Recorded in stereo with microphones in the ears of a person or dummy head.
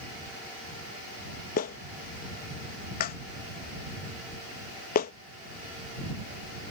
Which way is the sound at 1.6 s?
40° left (ahead or behind).